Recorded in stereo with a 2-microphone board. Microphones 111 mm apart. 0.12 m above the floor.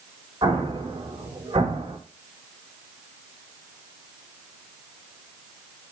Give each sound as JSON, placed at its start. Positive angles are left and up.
{"t": 0.4, "sound": "an explosion", "side_deg": -40, "distance_m": 5.0}